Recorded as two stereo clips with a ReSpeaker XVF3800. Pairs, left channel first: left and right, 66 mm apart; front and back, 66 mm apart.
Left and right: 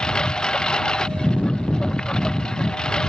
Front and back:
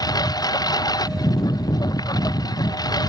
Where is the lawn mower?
10° left.